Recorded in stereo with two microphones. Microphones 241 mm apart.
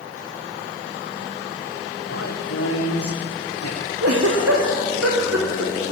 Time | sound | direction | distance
2.1 | a man speaking | 80° left | 6 m
4.0 | a giggle | 80° right | 5 m